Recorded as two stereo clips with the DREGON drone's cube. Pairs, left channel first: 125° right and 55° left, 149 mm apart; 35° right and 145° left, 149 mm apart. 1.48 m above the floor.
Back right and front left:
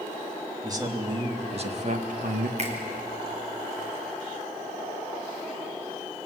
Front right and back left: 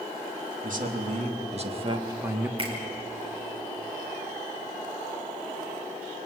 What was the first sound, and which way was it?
A man speaking, 120° left.